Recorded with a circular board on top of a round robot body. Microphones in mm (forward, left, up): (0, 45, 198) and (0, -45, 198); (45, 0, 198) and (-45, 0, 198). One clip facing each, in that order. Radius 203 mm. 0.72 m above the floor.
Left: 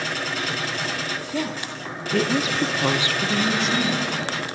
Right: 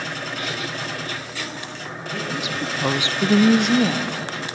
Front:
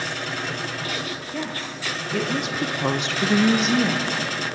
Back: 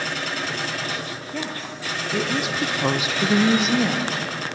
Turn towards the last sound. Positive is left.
turn(degrees=-90)